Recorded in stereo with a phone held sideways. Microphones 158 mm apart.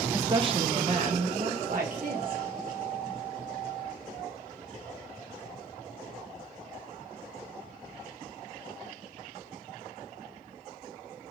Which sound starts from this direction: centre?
A woman speaking, at 0.1 s.